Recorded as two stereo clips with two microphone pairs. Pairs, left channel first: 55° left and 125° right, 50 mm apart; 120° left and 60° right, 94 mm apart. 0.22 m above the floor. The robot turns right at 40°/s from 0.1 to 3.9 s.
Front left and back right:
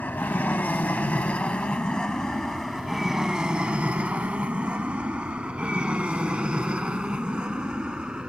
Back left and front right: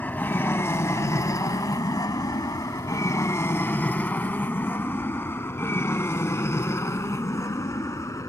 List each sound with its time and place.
0.0 s an aircraft: 65° left; by 8.3 s 170° left